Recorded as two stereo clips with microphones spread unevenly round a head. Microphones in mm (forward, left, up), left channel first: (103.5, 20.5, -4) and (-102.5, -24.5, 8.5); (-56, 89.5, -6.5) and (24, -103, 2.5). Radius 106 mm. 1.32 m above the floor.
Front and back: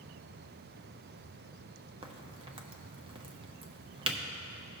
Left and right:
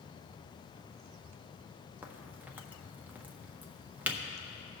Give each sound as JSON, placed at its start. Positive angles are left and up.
{"t": 2.0, "sound": "a crack", "azimuth_deg": -140, "distance_m": 0.7}